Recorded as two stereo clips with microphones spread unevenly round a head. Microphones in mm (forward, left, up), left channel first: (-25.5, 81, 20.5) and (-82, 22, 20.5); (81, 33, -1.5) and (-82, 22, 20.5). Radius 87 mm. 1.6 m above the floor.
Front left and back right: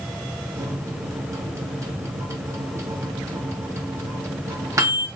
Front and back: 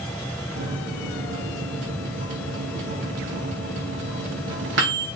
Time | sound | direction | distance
0.6 | a microwave | 175° left | 3 m